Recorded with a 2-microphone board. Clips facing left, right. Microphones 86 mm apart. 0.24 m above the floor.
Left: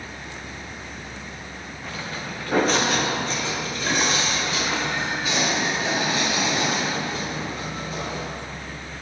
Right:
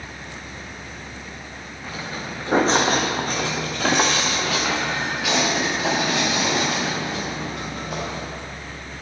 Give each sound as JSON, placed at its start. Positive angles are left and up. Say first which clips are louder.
{"t": 1.8, "sound": "footsteps", "louder": "right 2 dB", "side_deg": -5, "distance_m": 1.3}